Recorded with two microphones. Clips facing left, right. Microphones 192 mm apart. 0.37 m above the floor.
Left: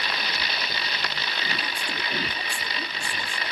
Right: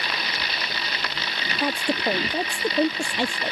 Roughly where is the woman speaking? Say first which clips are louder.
Right 10 dB; right.